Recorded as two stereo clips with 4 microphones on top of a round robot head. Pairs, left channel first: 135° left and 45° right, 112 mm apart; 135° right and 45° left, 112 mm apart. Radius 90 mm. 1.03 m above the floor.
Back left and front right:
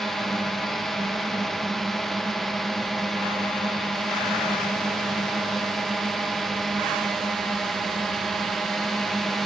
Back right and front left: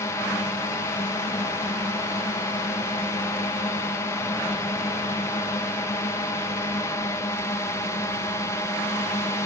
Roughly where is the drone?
Behind right.